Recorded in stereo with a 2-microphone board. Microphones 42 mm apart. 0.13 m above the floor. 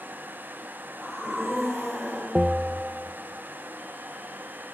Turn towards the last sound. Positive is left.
turn(degrees=-20)  # may be behind; listen again after turning